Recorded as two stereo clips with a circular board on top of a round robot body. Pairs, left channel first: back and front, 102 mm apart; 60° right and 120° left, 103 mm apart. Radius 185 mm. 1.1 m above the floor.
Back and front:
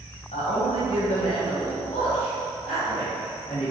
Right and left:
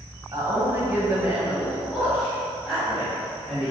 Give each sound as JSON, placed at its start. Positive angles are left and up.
{"t": 0.3, "sound": "a man speaking", "azimuth_deg": 180, "distance_m": 1.2}